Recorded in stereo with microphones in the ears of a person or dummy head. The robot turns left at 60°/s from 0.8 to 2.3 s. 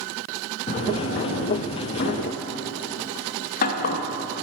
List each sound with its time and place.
0.7 s a drawer: 40° left (ahead or behind), 0.7 m; by 4.0 s 45° left (ahead or behind), 0.7 m